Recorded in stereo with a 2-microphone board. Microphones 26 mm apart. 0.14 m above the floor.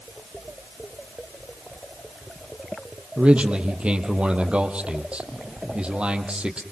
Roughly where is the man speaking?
Right.